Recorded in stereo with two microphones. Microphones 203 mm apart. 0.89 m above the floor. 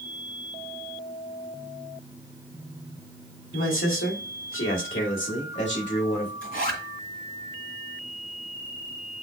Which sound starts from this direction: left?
A man speaking, at 3.5 s.